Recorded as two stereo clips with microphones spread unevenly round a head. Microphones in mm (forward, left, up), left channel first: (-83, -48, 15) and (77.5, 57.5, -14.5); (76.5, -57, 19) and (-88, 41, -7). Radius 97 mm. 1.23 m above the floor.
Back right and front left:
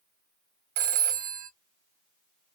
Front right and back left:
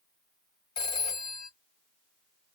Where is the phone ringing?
35° left, 0.6 m.